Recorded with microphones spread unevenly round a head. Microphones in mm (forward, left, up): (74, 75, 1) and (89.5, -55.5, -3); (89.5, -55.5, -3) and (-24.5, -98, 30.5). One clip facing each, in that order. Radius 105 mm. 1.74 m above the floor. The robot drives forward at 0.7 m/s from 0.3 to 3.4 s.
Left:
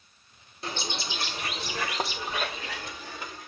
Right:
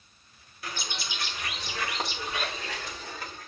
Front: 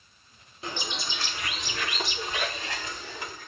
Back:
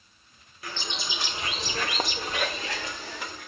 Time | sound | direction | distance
0.6 | a bird | 95° left | 0.6 m